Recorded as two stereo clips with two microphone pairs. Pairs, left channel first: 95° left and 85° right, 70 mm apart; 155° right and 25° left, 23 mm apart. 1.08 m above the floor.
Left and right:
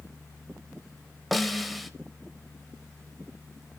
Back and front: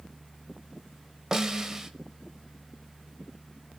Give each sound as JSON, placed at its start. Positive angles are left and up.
{"t": 1.3, "sound": "a snare drum", "azimuth_deg": 5, "distance_m": 0.9}